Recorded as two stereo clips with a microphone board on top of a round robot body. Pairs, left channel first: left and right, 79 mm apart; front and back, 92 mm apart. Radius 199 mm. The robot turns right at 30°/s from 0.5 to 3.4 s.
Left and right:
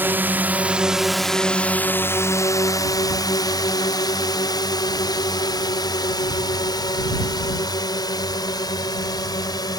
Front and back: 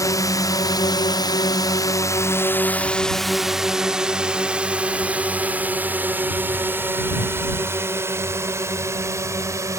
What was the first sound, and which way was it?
A drone, 35° right.